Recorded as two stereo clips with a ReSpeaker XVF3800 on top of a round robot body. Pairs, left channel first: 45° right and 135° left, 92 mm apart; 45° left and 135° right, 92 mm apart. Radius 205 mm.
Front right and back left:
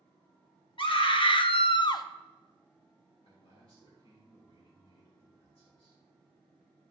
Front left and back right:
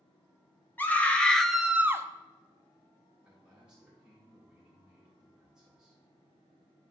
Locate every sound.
0.8 s a scream: 25° right, 1.5 m; by 2.0 s 85° right, 0.8 m
3.2 s a man speaking: 55° right, 3.5 m